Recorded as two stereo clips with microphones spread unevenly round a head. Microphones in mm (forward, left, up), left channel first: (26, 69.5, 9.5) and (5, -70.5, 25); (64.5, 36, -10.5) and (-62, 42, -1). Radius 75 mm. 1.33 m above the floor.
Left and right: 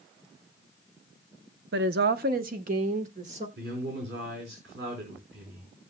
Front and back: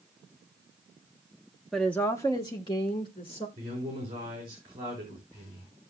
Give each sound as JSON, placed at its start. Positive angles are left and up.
{"t": 1.7, "sound": "a woman speaking", "azimuth_deg": -90, "distance_m": 0.7}
{"t": 3.6, "sound": "a man speaking", "azimuth_deg": -120, "distance_m": 4.0}